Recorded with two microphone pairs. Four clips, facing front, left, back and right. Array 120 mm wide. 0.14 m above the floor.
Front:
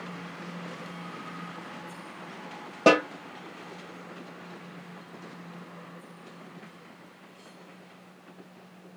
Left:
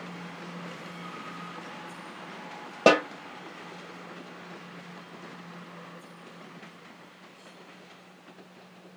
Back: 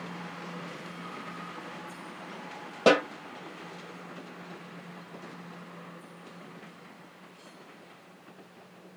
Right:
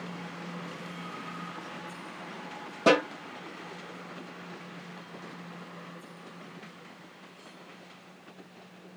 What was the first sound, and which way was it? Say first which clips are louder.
A snare drum: left 2 dB, front 2 dB; 75° left.